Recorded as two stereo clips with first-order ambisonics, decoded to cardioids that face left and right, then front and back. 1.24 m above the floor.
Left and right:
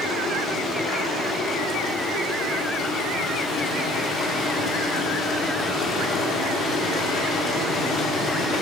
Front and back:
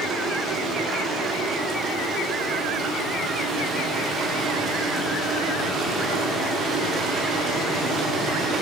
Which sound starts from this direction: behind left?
Running water, at 0.0 s.